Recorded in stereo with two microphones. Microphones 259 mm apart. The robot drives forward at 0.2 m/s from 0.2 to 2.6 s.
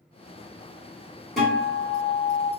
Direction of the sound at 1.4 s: Centre (ahead or behind).